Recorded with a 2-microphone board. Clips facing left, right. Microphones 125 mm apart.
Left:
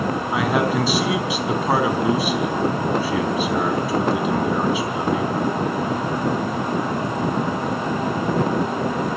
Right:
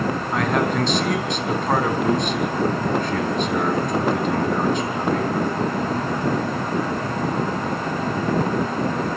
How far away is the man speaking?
About 4 m.